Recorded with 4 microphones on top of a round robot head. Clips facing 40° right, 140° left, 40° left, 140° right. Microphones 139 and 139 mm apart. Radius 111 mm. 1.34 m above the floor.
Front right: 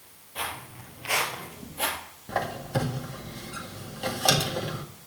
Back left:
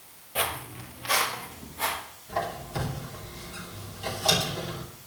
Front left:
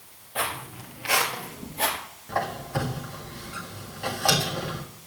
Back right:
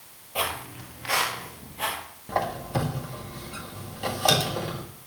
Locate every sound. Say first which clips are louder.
0.3 s footsteps: back left 5 dB, back right 1 dB; 155° left, 1.6 m; by 2.0 s 10° right, 2 m
2.3 s a squeak: front right 2 dB, back right 1 dB; 70° right, 1.8 m